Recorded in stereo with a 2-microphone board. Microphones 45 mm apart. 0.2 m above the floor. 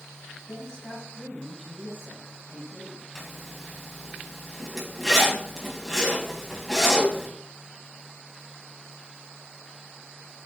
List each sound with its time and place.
0.5 s a woman speaking: 20° left (ahead or behind), 1.3 m; by 3.0 s 20° right (ahead or behind), 2.0 m
3.1 s a zipper: 5° left (ahead or behind), 1.2 m